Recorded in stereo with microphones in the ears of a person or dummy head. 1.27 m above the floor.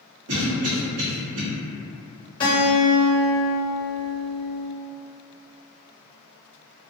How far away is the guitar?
About 0.8 m.